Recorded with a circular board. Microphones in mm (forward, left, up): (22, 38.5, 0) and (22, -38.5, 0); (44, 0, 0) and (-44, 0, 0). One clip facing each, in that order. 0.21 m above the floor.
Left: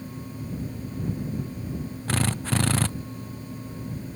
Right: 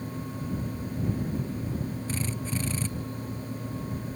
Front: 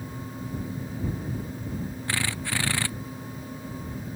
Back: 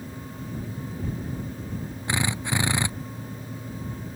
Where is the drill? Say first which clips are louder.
Left 5 dB, back 4 dB; 110° left.